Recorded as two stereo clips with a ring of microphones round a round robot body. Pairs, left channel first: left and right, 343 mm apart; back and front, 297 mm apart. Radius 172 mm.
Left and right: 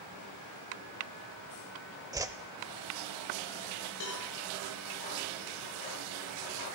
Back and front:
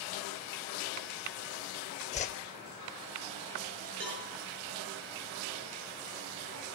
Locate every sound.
2.1 s a whoosh: 155° right, 0.6 m
4.0 s a cowbell: 40° left, 5 m